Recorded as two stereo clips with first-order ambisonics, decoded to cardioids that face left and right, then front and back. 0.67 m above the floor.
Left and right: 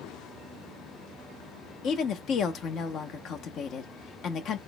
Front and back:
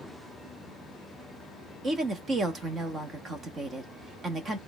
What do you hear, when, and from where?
1.8 s a woman speaking: 120° left, 0.7 m